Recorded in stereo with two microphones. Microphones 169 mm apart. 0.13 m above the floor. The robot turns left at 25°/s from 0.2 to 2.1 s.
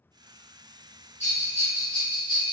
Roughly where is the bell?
Left.